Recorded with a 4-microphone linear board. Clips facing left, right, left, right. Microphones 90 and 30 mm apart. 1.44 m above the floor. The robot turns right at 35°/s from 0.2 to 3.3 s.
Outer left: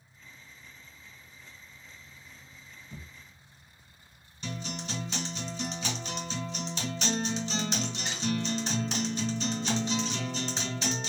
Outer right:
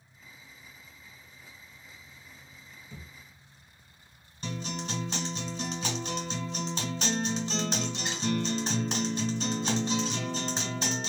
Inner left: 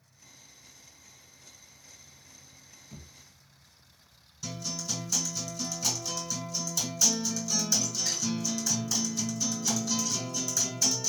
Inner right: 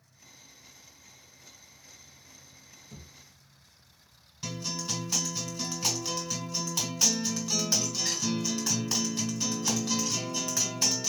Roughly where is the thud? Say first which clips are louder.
Outer left 1 dB, inner left 1 dB; centre.